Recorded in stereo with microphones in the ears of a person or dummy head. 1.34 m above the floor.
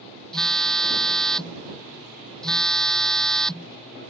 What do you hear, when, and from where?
0.3 s a phone buzzing: 5° left (ahead or behind)